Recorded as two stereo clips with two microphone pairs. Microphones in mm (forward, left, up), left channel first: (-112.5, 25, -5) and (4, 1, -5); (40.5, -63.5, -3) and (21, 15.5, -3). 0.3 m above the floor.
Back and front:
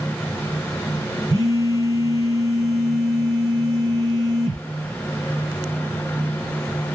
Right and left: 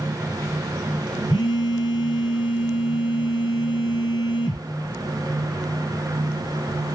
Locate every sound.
1.3 s a phone buzzing: 60° right, 2.5 m